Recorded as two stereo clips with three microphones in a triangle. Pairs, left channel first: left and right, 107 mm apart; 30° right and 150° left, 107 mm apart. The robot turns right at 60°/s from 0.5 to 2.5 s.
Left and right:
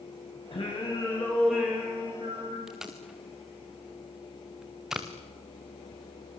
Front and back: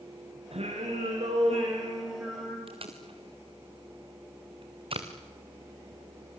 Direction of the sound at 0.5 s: 125° left.